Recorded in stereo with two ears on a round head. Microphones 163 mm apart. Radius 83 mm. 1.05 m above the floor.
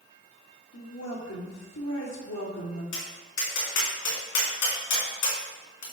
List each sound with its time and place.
0.7 s a woman speaking: 85° left, 2 m
2.9 s tapping: 80° left, 2 m